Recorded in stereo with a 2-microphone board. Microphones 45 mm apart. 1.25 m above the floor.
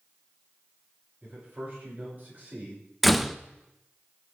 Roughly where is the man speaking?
Right.